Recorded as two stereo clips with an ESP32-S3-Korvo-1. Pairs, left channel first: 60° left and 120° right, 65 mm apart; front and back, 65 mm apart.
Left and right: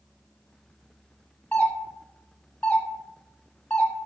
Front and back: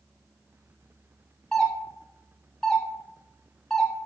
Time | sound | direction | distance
1.5 | a doorbell | 60° left | 1.7 m